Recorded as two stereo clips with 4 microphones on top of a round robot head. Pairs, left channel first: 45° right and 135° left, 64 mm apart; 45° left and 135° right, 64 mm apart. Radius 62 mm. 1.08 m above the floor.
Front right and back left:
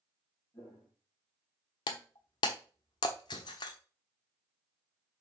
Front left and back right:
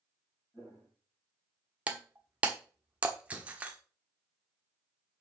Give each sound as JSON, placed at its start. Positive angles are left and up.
{"t": 0.5, "sound": "footsteps", "azimuth_deg": -20, "distance_m": 3.5}
{"t": 1.9, "sound": "breaking glass", "azimuth_deg": -65, "distance_m": 1.0}